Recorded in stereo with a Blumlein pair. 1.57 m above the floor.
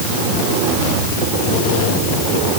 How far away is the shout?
No shout in this recording.